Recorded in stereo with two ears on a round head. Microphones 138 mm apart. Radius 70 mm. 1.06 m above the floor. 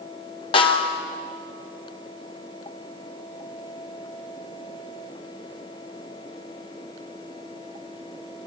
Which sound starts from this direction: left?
A snare drum, at 0.5 s.